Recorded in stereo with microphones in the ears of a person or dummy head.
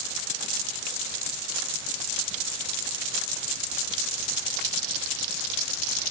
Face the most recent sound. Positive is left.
No sound to turn to.